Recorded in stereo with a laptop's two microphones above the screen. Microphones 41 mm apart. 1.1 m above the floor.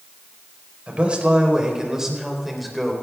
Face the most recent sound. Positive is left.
turn(degrees=5)  # may be behind; listen again after turning